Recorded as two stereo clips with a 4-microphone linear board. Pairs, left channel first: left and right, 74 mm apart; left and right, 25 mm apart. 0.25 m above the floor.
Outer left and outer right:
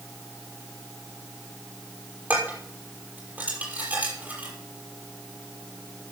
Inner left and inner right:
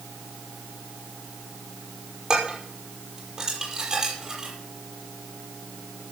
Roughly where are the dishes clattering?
Right.